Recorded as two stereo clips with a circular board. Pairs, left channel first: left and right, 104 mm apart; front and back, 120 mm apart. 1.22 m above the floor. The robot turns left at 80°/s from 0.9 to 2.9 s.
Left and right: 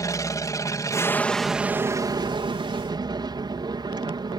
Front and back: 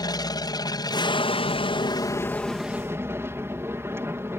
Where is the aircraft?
45° left; by 4.4 s 115° right.